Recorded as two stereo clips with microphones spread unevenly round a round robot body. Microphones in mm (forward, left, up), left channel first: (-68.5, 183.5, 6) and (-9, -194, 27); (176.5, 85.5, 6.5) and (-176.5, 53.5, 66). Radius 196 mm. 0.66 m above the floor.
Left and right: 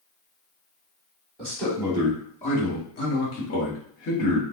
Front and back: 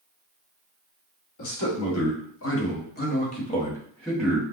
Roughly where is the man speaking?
Ahead.